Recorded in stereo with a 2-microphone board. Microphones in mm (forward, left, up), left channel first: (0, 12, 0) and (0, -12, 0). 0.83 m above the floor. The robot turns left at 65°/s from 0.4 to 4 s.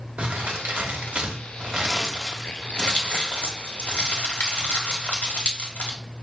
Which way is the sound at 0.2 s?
55° right (ahead or behind).